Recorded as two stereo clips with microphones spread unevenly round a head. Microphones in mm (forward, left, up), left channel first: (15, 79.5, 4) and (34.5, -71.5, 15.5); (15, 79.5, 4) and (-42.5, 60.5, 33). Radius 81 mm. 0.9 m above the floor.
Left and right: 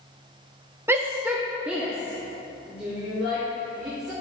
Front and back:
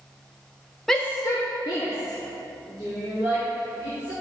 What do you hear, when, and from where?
0.9 s a shout: 10° right, 0.5 m; by 4.1 s straight ahead, 5 m